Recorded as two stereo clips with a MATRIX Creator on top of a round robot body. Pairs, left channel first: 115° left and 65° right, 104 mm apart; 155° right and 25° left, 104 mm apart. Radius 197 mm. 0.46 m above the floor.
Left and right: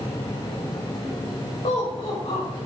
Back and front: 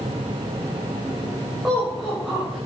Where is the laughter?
105° left, 3 m.